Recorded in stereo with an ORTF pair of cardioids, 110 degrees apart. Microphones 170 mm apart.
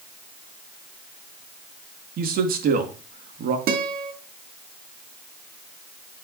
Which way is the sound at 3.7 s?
60° right.